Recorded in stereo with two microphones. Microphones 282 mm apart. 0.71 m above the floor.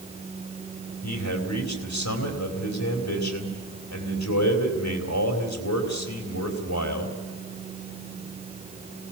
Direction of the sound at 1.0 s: 70° left (ahead or behind).